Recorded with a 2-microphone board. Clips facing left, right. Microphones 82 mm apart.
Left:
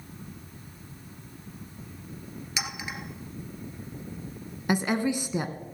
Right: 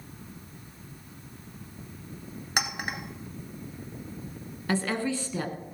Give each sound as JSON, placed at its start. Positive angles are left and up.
{"t": 2.6, "sound": "a clink", "side_deg": -55, "distance_m": 1.4}
{"t": 4.7, "sound": "a woman speaking", "side_deg": 15, "distance_m": 1.1}